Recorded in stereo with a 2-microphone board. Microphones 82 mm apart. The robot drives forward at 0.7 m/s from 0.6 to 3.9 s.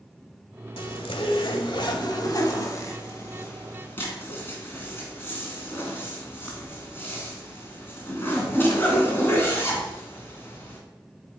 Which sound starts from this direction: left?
A zipper, at 0.8 s.